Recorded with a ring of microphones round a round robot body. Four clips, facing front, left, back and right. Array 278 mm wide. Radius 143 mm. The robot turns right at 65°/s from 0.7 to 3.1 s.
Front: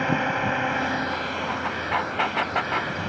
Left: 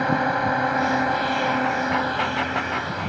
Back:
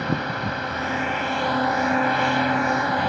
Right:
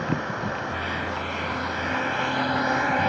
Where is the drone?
75° left; by 3.1 s 125° right.